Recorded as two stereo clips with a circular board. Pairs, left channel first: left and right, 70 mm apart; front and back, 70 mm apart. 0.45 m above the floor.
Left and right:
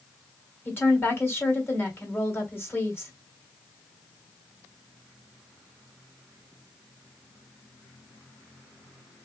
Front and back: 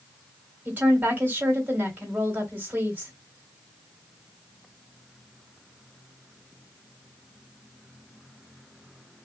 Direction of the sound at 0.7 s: 130° left.